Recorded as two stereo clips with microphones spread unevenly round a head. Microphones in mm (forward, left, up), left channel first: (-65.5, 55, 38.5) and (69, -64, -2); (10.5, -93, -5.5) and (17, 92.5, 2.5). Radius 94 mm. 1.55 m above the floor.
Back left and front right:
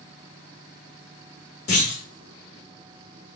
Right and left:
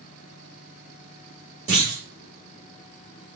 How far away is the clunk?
About 2.5 m.